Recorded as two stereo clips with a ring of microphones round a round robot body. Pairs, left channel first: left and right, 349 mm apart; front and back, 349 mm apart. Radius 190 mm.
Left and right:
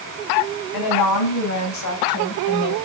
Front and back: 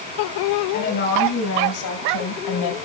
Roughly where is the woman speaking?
Left.